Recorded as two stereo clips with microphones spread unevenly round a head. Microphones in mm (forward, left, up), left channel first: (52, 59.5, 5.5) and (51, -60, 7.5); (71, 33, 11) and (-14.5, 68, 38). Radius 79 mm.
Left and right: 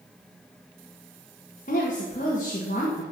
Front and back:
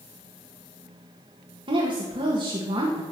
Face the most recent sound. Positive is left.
turn(degrees=135)